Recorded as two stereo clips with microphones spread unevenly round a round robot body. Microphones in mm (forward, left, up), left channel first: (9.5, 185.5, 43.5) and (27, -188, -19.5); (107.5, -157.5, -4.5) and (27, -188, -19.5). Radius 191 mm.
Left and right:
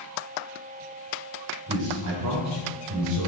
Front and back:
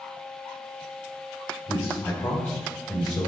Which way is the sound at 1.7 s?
35° right.